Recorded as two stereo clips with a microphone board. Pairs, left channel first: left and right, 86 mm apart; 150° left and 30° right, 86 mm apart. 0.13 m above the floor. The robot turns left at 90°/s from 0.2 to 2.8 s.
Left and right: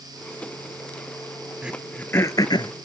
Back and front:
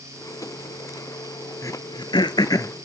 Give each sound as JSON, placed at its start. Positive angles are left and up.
{"t": 1.6, "sound": "throat clearing", "azimuth_deg": -165, "distance_m": 0.6}